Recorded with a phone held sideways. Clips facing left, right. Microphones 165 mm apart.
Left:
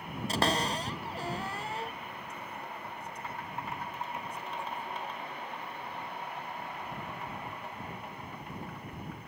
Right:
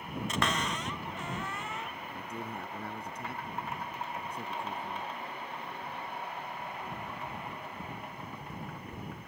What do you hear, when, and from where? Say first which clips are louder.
0.3 s a cupboard door: left 4 dB; 35° left (ahead or behind)
2.1 s a man speaking: right 3 dB; 70° right (ahead or behind)